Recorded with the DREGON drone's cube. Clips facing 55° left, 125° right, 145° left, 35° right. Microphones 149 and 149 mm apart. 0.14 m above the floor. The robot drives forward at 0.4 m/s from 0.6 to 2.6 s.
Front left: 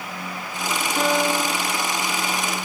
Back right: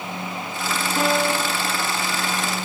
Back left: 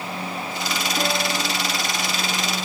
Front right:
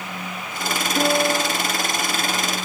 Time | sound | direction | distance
1.0 | a piano | 40° right | 4.5 m